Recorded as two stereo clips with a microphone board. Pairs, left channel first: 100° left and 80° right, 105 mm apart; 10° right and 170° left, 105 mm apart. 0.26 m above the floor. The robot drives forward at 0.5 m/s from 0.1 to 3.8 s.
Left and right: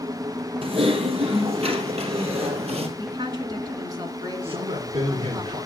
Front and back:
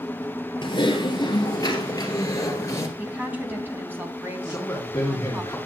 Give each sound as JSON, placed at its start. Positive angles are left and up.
{"t": 0.6, "sound": "typing on a keyboard", "azimuth_deg": -55, "distance_m": 3.0}
{"t": 3.0, "sound": "a woman speaking", "azimuth_deg": -115, "distance_m": 3.0}
{"t": 4.4, "sound": "a man speaking", "azimuth_deg": -80, "distance_m": 3.0}